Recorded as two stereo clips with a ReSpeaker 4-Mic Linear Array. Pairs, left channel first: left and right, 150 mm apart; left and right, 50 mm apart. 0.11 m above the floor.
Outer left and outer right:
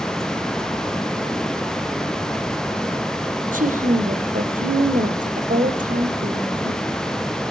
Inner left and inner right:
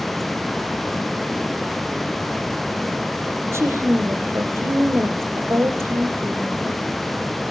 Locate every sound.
3.5 s a woman speaking: 65° right (ahead or behind), 3.5 m